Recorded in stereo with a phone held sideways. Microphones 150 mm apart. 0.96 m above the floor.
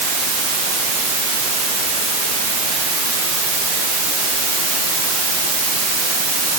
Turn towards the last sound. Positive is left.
No sound to turn to.